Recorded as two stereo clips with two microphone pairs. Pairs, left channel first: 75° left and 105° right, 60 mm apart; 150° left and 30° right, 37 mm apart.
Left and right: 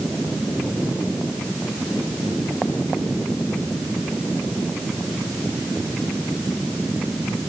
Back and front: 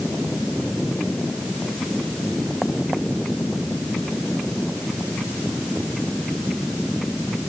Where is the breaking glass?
I don't hear breaking glass.